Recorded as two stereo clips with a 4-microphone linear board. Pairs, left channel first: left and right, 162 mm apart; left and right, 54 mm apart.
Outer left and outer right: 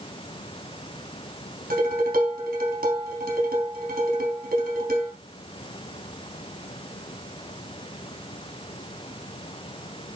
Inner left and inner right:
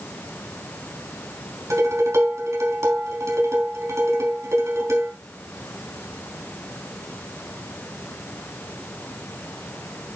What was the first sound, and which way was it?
Dishes clattering, 65° right (ahead or behind).